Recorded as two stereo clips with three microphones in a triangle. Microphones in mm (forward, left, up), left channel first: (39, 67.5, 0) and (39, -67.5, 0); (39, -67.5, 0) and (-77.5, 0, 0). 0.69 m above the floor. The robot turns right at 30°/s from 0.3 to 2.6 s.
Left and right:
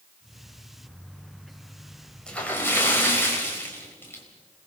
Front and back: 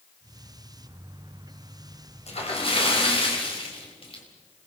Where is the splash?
5° left, 4 m; by 4.2 s 15° left, 4 m.